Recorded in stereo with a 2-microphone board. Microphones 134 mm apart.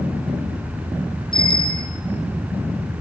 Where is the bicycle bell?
35° left (ahead or behind), 9 m.